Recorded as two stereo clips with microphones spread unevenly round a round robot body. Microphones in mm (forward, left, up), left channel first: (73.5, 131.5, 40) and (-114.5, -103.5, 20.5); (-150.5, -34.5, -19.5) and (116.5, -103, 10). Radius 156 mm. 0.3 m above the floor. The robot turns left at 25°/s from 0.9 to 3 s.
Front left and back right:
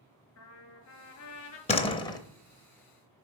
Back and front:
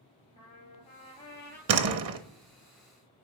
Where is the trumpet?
95° left, 1.9 m; by 1.6 s 75° left, 1.9 m.